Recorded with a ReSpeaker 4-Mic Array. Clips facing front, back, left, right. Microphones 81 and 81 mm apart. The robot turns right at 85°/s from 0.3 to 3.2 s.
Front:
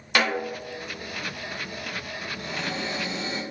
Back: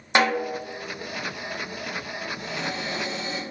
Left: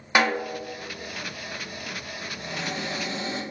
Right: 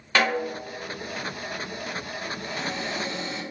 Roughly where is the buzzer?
I don't hear a buzzer.